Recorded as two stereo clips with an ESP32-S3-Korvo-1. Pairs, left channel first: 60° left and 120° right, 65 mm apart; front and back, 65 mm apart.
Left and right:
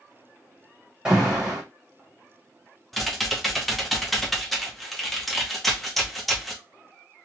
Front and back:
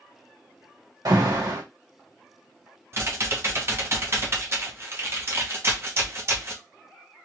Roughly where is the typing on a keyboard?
Behind left.